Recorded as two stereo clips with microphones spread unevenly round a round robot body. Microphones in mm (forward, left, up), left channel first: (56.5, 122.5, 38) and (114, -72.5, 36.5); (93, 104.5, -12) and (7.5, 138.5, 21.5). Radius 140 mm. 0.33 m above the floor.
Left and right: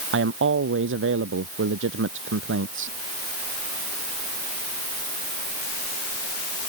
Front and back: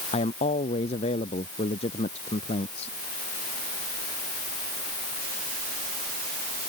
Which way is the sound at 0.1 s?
55° right.